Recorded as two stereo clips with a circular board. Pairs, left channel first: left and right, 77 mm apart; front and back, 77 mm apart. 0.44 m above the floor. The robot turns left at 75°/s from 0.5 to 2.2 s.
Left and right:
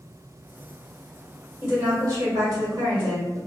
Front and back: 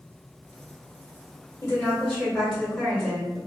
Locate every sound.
1.6 s a woman speaking: 40° right, 1.4 m; by 3.4 s 85° right, 1.4 m